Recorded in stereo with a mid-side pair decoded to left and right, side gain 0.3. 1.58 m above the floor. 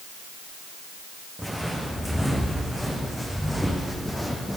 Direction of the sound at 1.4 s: Straight ahead.